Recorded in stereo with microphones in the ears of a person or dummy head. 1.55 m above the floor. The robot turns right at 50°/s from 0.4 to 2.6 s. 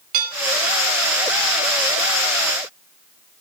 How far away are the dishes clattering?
About 5 m.